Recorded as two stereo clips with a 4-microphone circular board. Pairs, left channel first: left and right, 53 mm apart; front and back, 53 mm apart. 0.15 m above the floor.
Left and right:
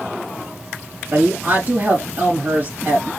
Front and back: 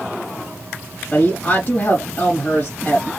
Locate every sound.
1.1 s a woman speaking: 55° right, 3 m